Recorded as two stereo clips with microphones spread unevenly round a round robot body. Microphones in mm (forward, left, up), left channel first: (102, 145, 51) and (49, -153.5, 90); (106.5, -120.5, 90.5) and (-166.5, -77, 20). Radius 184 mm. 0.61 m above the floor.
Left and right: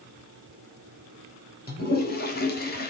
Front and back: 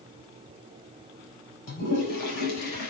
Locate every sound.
1.7 s a toilet flushing: 25° left, 4 m